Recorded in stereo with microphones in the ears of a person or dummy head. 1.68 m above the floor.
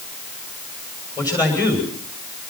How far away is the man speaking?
About 7 m.